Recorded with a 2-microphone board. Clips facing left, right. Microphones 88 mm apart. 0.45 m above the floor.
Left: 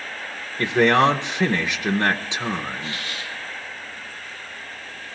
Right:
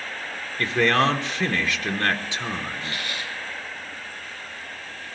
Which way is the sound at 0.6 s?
20° left (ahead or behind).